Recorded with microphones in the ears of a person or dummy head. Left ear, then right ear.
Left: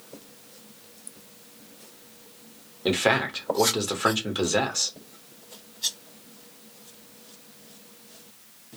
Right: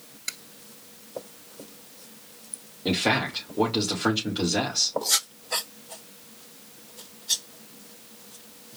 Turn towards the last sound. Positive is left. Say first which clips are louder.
# left 2 dB
turn(degrees=50)  # may be behind; listen again after turning